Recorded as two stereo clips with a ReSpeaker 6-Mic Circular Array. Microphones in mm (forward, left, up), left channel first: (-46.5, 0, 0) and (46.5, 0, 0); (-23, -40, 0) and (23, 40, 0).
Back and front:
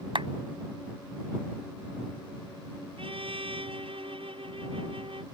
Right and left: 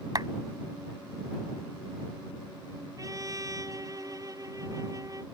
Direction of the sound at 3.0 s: 10° left.